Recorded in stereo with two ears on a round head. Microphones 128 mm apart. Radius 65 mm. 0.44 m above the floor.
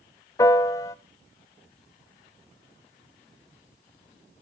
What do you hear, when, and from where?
0.4 s a piano: 25° left (ahead or behind), 0.9 m